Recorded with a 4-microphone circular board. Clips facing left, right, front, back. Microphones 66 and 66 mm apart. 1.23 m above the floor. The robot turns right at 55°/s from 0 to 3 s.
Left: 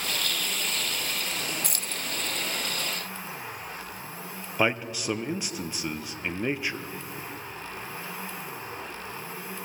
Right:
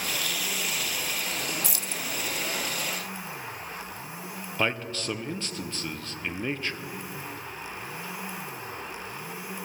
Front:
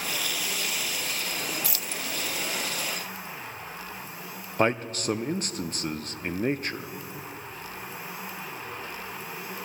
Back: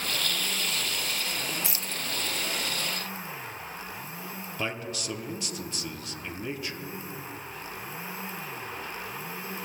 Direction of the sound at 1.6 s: 115° left.